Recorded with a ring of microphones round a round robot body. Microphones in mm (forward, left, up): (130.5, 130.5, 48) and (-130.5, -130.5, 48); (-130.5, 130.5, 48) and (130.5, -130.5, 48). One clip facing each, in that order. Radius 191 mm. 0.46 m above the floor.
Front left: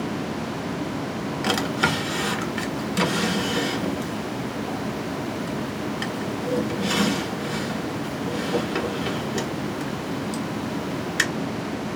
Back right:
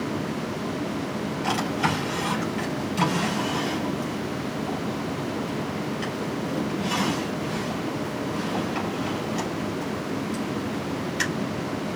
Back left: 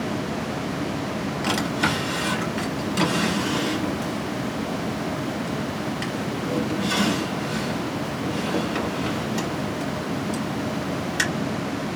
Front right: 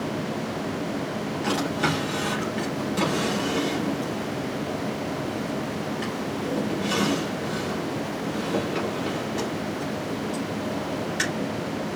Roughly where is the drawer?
Ahead left.